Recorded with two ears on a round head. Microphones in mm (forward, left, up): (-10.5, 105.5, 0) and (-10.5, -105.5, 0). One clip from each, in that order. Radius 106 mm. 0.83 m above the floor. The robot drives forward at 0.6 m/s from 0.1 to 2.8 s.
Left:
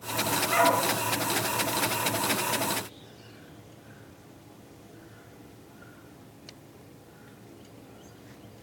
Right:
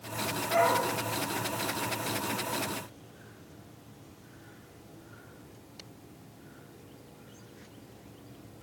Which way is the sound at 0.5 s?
80° left.